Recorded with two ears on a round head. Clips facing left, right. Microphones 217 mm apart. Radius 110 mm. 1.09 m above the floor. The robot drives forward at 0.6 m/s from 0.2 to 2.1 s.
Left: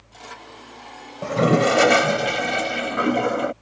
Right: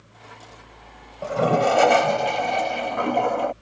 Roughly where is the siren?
No siren in this recording.